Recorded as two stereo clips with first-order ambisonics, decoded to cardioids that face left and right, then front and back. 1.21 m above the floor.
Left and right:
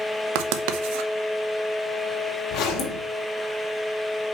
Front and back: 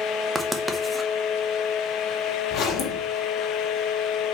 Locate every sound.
0.3 s writing: 95° right, 0.9 m
2.5 s a zipper: 50° left, 1.8 m